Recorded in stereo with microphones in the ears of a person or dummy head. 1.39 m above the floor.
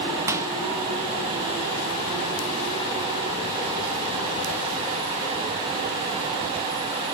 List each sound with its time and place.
0.3 s a microwave: 15° right (ahead or behind), 1.1 m